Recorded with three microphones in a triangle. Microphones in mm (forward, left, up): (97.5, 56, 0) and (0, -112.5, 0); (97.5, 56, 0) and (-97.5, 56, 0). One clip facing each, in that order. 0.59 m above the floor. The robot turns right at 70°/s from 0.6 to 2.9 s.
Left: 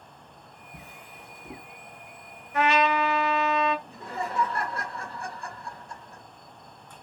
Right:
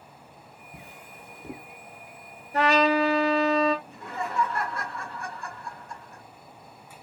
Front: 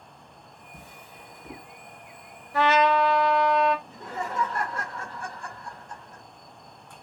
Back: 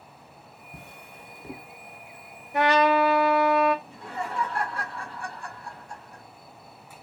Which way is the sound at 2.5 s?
125° right.